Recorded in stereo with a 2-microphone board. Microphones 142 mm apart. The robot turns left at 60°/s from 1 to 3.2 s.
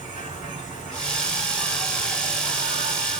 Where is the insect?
65° left, 2.5 m; by 3.2 s 70° right, 2.5 m.